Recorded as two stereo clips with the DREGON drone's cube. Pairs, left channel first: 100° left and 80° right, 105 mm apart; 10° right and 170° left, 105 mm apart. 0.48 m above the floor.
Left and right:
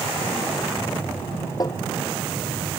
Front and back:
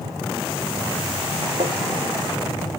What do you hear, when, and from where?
1.6 s tapping: 150° left